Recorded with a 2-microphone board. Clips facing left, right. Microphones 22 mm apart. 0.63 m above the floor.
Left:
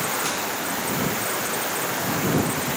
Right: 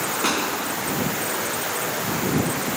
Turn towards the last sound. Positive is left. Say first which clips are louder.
# right 3 dB
turn(degrees=-85)